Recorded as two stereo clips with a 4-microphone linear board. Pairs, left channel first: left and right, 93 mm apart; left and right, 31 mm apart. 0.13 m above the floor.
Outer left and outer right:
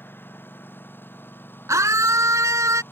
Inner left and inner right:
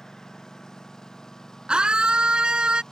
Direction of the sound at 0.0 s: 25° left (ahead or behind).